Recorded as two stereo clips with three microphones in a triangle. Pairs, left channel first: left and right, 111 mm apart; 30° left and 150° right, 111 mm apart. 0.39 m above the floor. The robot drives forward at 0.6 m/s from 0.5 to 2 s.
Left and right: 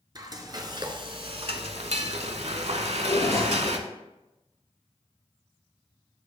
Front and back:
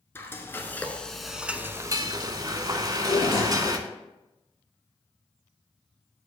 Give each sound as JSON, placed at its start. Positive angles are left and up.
{"t": 0.1, "sound": "frying", "azimuth_deg": -40, "distance_m": 1.1}
{"t": 2.8, "sound": "a drawer", "azimuth_deg": 70, "distance_m": 3.0}